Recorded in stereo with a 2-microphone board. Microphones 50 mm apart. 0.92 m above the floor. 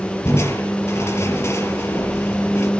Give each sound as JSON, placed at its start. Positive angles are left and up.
{"t": 0.2, "sound": "crushing", "side_deg": 65, "distance_m": 5.0}